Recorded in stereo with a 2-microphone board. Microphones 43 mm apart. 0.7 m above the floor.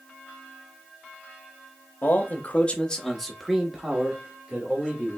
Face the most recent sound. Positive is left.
turn(degrees=-30)  # may be behind; listen again after turning